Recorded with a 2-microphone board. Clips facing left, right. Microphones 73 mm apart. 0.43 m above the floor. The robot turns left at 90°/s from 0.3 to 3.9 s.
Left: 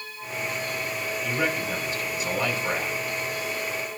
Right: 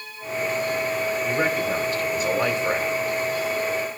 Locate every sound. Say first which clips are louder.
1.2 s a man speaking: right 2 dB; 20° right, 1.8 m; by 3.0 s straight behind, 1.8 m